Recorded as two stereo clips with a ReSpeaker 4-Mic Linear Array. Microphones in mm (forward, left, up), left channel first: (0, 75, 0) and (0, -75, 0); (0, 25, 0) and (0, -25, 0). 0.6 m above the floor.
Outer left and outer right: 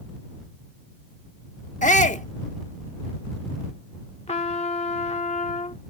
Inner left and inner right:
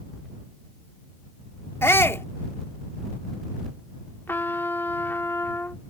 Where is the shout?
55° left (ahead or behind).